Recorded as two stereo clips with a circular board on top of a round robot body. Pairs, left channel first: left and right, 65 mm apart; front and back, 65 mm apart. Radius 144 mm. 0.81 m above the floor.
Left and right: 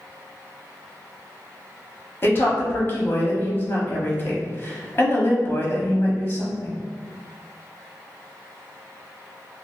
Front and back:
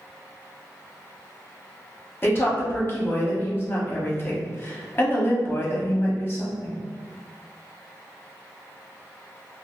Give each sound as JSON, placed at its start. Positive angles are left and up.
{"t": 2.2, "sound": "a woman speaking", "azimuth_deg": 45, "distance_m": 1.3}